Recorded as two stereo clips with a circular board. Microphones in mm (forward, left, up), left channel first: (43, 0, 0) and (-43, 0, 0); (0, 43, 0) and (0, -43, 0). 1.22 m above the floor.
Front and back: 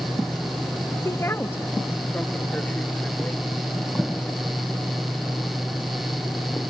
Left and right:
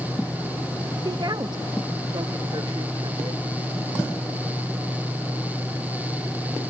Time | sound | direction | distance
1.1 | a woman speaking | 55° right | ?